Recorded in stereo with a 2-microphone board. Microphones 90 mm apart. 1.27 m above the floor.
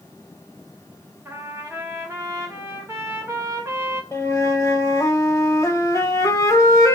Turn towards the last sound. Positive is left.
turn(degrees=35)  # may be behind; listen again after turning